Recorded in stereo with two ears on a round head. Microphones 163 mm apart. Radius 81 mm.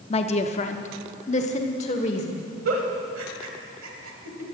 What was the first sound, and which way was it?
A woman speaking, 30° left (ahead or behind).